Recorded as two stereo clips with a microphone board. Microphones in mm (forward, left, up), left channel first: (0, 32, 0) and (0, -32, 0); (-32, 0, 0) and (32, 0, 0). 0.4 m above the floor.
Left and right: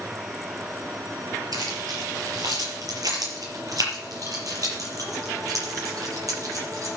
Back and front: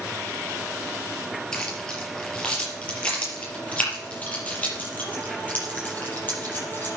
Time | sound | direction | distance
1.5 | keys jangling | 105° right | 4.5 m